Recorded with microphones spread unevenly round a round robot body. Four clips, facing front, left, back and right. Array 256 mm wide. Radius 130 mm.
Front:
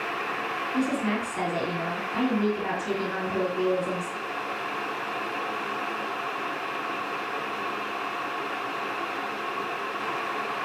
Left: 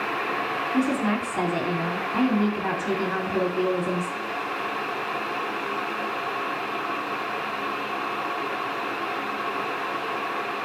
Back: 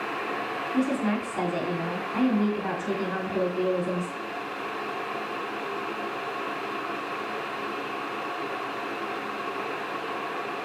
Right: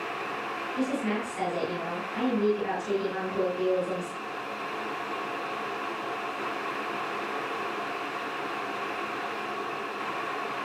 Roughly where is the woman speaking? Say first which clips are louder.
Left 5 dB, back 1 dB; left.